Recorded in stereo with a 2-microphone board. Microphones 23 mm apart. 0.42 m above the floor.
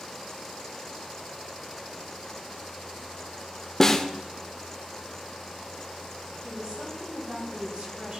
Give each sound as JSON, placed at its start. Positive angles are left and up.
{"t": 3.8, "sound": "a snare drum", "side_deg": 20, "distance_m": 0.7}
{"t": 6.4, "sound": "a woman speaking", "side_deg": -50, "distance_m": 3.5}